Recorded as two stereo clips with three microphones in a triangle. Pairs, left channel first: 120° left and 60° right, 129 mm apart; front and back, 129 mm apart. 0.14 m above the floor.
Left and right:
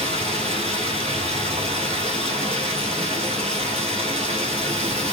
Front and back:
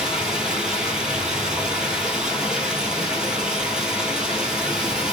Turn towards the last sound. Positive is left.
turn(degrees=-95)